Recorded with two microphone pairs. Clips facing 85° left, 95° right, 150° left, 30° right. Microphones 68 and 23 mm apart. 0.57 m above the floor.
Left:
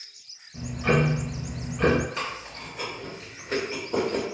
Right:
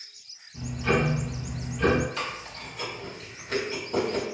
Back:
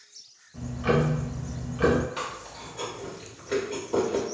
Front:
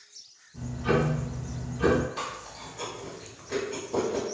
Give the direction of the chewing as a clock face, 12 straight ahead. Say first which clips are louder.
Left 1 dB, back 1 dB; 7 o'clock.